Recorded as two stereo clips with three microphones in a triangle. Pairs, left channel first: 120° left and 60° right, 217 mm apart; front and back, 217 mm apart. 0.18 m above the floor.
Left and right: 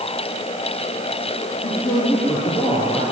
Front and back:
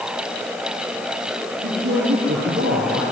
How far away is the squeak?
No squeak in this recording.